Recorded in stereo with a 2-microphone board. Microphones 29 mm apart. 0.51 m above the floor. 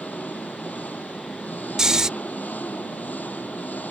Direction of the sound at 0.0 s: 80° left.